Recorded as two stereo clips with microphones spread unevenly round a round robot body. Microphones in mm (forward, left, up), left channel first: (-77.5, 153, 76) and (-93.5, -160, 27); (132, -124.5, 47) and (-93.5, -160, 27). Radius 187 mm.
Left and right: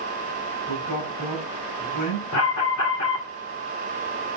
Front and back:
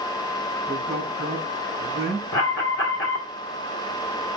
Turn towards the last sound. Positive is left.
turn(degrees=50)